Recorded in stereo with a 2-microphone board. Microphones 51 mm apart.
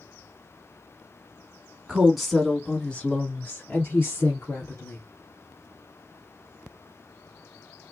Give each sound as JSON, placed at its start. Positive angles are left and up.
{"t": 1.9, "sound": "a woman speaking", "side_deg": -10, "distance_m": 1.2}